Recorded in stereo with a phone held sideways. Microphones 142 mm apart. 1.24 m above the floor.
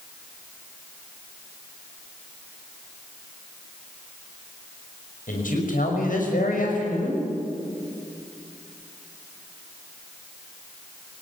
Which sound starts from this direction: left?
A man speaking, at 5.3 s.